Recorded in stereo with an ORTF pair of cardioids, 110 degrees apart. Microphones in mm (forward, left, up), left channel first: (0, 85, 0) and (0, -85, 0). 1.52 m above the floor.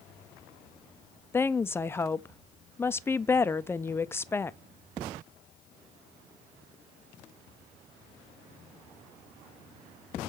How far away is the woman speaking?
About 0.5 m.